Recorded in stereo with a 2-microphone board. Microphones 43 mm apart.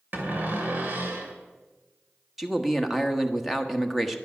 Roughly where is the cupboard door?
Right.